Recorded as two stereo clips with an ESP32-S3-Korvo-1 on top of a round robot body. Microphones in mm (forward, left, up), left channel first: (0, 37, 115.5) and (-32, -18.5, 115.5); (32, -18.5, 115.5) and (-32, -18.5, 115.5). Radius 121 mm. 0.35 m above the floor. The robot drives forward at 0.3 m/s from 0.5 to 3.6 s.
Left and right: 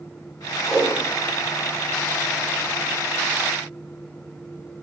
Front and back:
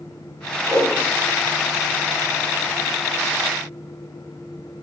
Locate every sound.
0.7 s a whoosh: 155° left, 3 m